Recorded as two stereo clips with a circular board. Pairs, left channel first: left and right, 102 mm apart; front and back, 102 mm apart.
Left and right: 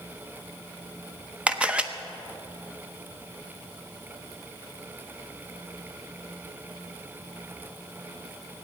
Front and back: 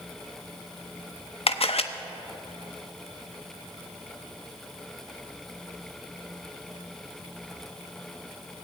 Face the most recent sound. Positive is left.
turn(degrees=-10)